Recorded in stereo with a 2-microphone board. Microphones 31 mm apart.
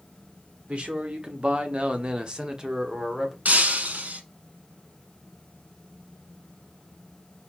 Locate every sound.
0.7 s a man speaking: 45° right (ahead or behind), 1.0 m; by 3.4 s 10° right (ahead or behind), 1.1 m
3.5 s breaking glass: 65° right (ahead or behind), 0.7 m